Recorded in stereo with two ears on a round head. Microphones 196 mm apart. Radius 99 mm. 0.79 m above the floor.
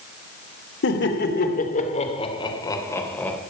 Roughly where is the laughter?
Left.